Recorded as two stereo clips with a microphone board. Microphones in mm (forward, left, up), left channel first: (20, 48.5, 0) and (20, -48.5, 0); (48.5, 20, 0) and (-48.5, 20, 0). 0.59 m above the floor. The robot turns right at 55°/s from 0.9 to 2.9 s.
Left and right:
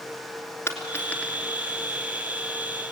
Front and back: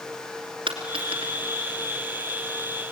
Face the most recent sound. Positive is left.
turn(degrees=-95)